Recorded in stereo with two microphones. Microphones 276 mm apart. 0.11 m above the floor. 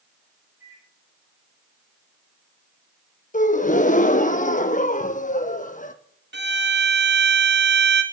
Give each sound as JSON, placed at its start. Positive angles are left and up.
{"t": 0.6, "sound": "a microwave", "side_deg": -50, "distance_m": 3.5}
{"t": 3.3, "sound": "a gasp", "side_deg": 30, "distance_m": 0.7}
{"t": 6.3, "sound": "a violin", "side_deg": -40, "distance_m": 1.3}